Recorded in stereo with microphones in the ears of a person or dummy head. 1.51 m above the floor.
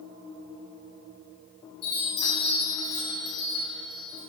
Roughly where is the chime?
Left.